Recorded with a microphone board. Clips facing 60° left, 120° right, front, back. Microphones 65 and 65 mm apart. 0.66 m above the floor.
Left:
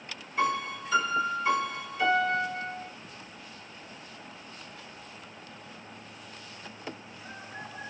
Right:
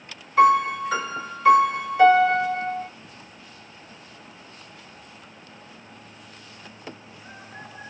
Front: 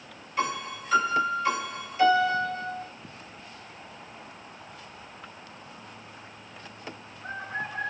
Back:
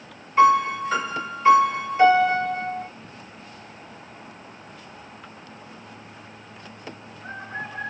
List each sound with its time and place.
0.4 s a piano: 125° right, 2.5 m